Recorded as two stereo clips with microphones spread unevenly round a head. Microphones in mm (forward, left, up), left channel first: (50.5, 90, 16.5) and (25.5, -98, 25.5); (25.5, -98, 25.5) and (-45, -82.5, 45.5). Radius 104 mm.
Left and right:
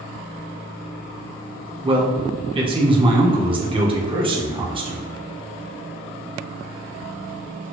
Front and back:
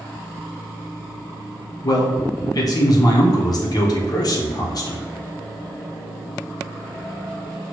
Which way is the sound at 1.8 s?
35° right.